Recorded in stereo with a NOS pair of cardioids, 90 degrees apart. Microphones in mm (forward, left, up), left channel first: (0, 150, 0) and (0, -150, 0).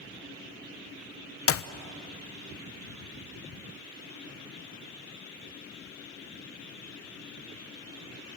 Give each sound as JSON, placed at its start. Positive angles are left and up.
{"t": 1.5, "sound": "a clap", "azimuth_deg": 50, "distance_m": 0.9}